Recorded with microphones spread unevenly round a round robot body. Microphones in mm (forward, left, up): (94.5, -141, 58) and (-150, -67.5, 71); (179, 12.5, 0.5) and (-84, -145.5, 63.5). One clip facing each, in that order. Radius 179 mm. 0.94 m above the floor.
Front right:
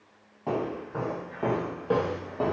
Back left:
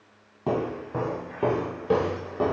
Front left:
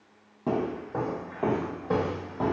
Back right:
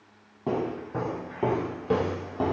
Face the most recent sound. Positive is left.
turn(degrees=-125)